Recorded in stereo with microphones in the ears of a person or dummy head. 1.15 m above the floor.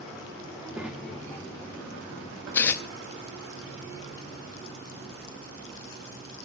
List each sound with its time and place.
0.5 s a child speaking: 10° right (ahead or behind), 2 m; by 2.4 s 40° left (ahead or behind), 1.3 m
2.5 s tearing paper: 15° left (ahead or behind), 0.5 m